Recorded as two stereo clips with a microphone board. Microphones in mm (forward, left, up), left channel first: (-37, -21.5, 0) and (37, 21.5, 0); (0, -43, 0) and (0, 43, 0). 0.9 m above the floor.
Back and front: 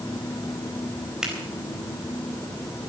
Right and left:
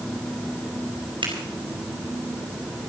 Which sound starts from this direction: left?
A finger snap, at 1.2 s.